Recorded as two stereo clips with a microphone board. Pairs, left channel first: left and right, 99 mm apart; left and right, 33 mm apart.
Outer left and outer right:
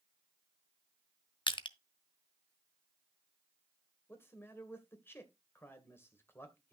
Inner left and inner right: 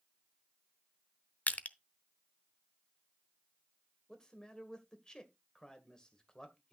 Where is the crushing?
50° left (ahead or behind), 0.7 m.